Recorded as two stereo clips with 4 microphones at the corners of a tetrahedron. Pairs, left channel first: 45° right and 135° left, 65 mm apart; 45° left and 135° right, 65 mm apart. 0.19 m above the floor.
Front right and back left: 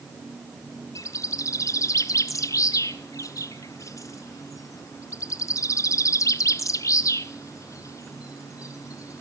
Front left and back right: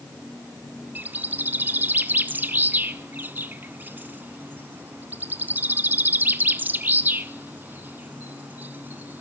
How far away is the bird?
About 0.5 m.